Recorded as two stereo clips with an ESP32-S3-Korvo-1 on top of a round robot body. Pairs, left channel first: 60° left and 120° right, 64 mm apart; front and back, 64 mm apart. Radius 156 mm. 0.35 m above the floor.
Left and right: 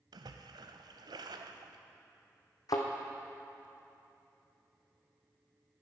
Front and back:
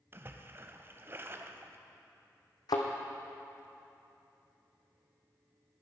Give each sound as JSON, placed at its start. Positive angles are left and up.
{"t": 0.1, "sound": "a splash", "azimuth_deg": -125, "distance_m": 0.7}
{"t": 2.7, "sound": "a thud", "azimuth_deg": 25, "distance_m": 1.1}